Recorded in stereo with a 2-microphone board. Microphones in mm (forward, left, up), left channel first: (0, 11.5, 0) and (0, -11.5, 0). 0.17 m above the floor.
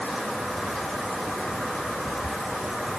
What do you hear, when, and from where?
Only background noise.